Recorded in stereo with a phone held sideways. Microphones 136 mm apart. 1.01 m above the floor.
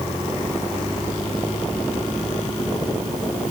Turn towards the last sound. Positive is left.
No sound to turn to.